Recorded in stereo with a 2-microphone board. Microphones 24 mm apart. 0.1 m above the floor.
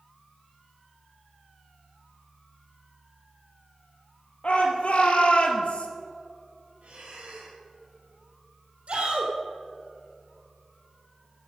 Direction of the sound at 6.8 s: 65° right (ahead or behind).